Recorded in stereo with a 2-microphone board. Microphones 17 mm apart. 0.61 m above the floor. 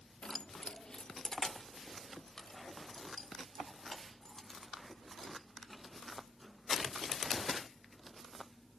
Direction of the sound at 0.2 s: 50° left (ahead or behind).